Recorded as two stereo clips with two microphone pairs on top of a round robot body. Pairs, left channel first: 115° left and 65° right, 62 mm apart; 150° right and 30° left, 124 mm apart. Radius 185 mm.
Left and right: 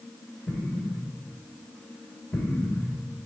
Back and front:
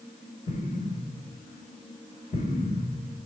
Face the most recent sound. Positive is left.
turn(degrees=175)